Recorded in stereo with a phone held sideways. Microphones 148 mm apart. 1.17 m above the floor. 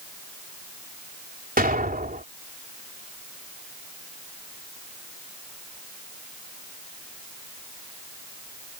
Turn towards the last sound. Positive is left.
turn(degrees=-70)  # may be behind; listen again after turning